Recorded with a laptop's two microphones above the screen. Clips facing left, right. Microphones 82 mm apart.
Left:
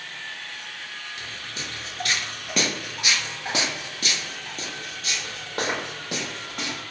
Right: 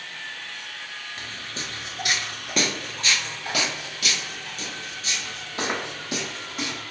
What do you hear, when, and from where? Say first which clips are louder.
1.2 s footsteps: right 1 dB; 35° right (ahead or behind), 1.2 m; by 6.8 s 45° left (ahead or behind), 3 m